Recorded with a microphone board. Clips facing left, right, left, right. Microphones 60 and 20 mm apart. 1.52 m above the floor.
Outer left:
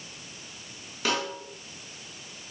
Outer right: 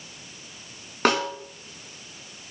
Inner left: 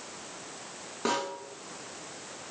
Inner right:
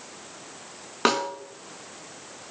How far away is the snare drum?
About 2.5 m.